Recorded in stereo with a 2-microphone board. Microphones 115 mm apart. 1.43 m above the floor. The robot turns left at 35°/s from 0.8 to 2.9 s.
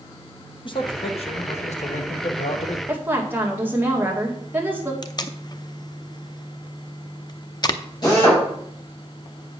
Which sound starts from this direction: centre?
A woman speaking, at 2.9 s.